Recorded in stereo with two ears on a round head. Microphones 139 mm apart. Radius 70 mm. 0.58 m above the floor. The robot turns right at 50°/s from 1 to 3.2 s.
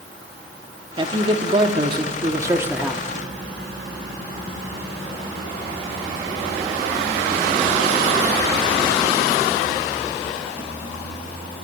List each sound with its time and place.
1.0 s a man speaking: 110° right, 1.2 m; by 3.0 s 10° right, 1.2 m